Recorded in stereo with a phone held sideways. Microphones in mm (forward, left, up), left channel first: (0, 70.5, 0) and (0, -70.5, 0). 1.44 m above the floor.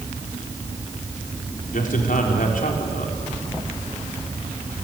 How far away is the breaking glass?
I don't hear breaking glass.